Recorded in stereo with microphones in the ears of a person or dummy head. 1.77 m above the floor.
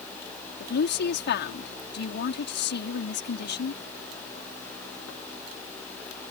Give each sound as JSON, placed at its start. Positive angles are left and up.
{"t": 0.6, "sound": "a woman speaking", "side_deg": 55}